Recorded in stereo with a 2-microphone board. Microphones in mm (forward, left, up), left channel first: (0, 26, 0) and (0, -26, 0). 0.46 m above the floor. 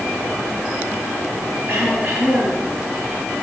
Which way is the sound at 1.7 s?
40° right (ahead or behind).